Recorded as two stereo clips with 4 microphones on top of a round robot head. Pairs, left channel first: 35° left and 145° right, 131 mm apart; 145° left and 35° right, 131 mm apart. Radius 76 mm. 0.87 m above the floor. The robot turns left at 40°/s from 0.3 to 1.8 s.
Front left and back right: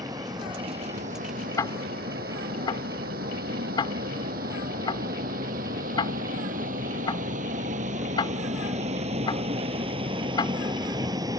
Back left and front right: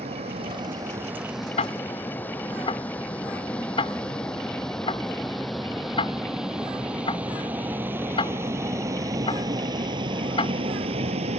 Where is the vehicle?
85° right; by 11.4 s 80° right.